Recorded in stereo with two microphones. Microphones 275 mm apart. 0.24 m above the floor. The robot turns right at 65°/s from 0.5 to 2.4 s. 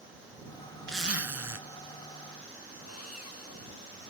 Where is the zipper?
130° right; by 1.6 s 80° right.